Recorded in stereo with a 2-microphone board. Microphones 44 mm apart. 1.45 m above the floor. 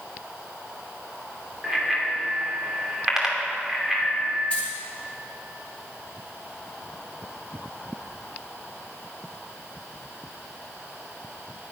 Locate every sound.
1.6 s a bicycle bell: 10° right (ahead or behind), 2.5 m
4.5 s keys jangling: 25° left (ahead or behind), 5.5 m